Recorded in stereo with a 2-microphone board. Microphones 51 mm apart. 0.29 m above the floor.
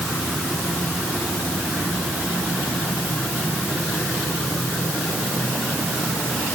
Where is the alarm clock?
No alarm clock in this recording.